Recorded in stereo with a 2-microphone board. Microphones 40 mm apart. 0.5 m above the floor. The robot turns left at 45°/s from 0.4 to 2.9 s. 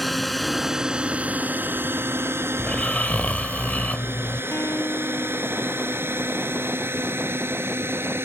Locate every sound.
0.0 s a drone: 5° left (ahead or behind); by 8.2 s 75° right (ahead or behind)
2.6 s snoring: 20° left (ahead or behind); by 4.4 s 35° left (ahead or behind)
4.5 s a guitar: 85° left